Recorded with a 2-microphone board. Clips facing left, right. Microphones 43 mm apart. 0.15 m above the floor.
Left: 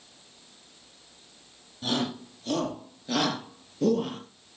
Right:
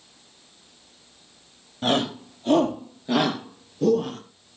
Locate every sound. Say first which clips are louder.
1.8 s a shout: right 6 dB; 45° right (ahead or behind), 3.5 m; by 4.2 s 5° left (ahead or behind), 3 m